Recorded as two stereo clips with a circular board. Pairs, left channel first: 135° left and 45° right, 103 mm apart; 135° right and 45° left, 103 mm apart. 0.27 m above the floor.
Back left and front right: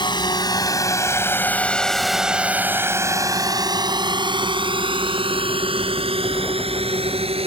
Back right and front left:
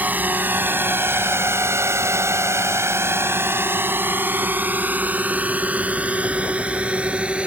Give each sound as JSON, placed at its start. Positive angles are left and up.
{"t": 0.0, "sound": "a drone", "azimuth_deg": 115}